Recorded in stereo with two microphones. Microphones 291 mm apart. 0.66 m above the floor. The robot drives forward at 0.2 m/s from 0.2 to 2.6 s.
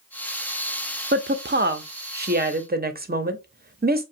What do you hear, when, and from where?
1.1 s a woman speaking: 35° right (ahead or behind), 0.6 m; by 4.0 s 30° right (ahead or behind), 0.7 m